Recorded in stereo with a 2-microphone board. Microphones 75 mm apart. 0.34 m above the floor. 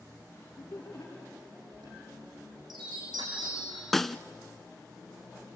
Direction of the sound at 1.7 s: 85° right.